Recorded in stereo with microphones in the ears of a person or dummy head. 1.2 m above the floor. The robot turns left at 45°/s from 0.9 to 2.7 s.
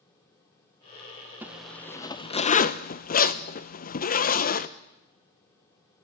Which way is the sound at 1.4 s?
10° right (ahead or behind).